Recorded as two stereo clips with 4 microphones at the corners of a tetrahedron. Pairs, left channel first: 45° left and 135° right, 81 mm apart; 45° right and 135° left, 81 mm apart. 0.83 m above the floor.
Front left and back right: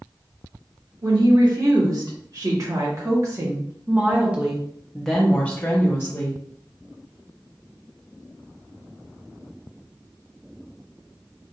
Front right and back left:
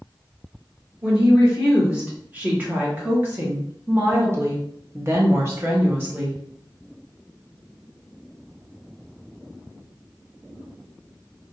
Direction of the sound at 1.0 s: 155° right.